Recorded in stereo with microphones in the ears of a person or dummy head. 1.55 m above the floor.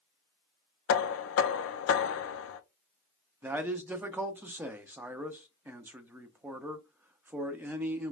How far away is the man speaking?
About 0.5 m.